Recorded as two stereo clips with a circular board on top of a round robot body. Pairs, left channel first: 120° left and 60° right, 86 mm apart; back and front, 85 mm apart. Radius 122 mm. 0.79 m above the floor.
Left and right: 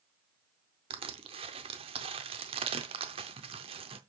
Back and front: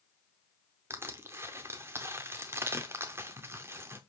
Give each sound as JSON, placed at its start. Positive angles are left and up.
{"t": 0.9, "sound": "crushing", "azimuth_deg": -65, "distance_m": 0.6}